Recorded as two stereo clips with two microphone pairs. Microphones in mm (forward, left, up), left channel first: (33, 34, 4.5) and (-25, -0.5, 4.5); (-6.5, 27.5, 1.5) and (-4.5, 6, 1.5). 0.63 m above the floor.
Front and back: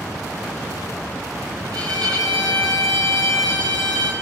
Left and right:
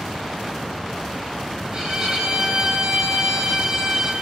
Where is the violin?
150° right, 8 m.